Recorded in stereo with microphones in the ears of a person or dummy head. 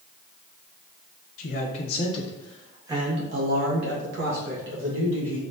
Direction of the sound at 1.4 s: 55° left (ahead or behind).